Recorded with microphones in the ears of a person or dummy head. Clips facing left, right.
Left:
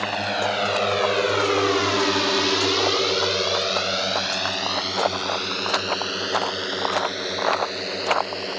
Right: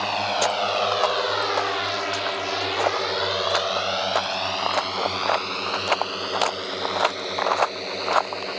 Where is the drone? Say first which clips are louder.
Right 1 dB; 15° left (ahead or behind); by 8.6 s 10° left (ahead or behind).